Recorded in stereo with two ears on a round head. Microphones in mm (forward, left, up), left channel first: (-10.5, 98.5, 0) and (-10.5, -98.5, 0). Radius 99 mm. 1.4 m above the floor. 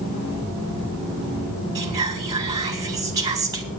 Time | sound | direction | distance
1.8 | whispering | 15° right (ahead or behind) | 4.5 m